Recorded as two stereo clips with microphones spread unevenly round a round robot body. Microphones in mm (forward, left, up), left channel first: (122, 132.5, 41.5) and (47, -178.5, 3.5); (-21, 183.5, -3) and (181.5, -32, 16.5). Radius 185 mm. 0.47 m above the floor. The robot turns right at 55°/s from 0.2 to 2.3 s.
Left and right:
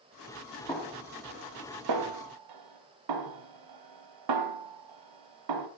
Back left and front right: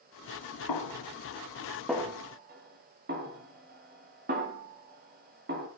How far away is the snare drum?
About 2.0 m.